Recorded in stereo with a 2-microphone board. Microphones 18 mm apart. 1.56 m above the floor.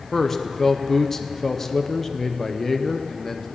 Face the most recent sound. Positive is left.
turn(degrees=20)  # may be behind; listen again after turning